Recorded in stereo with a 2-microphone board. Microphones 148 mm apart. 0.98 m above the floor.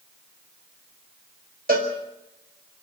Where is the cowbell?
80° right, 5 m.